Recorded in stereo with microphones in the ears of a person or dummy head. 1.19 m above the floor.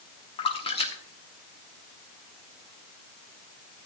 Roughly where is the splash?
Left.